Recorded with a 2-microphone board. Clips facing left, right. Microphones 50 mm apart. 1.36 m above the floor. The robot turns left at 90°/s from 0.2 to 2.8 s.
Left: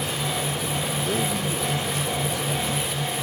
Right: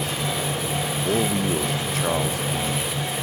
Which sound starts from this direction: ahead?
A man speaking, at 1.1 s.